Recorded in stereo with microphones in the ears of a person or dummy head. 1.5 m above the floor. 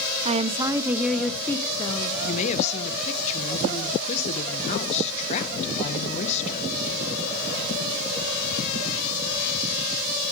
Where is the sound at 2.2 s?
35° left (ahead or behind), 1.5 m.